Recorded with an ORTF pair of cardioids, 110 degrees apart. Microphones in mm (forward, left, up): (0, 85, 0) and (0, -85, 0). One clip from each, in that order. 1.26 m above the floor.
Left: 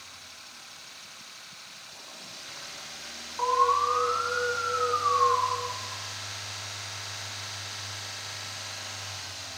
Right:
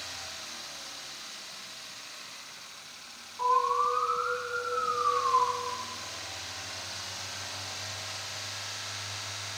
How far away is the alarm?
About 6.5 m.